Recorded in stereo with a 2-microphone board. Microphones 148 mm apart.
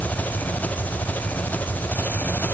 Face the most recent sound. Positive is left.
turn(degrees=10)  # may be behind; listen again after turning